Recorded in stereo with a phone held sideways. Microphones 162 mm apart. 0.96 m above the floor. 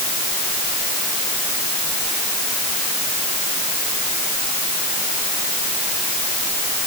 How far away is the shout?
I don't hear a shout.